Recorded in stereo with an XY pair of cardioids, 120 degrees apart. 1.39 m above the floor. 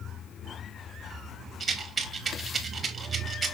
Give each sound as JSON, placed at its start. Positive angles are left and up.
{"t": 1.6, "sound": "a rattle", "azimuth_deg": -30, "distance_m": 1.1}